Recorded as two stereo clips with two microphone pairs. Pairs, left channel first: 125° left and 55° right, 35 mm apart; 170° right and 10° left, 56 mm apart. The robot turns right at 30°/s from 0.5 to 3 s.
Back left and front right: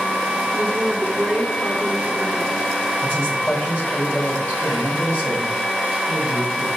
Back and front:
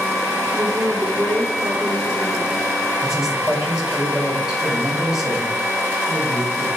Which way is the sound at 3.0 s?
90° left.